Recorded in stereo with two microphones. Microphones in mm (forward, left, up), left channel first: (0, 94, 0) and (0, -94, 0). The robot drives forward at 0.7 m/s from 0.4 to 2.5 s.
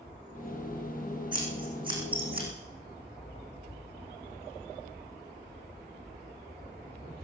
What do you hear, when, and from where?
1.3 s scissors: 25° right (ahead or behind), 5.5 m; by 2.5 s 30° right (ahead or behind), 5 m